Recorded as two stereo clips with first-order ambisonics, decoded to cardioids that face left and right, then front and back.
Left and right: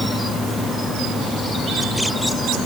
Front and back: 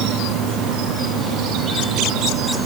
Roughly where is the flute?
I don't hear a flute.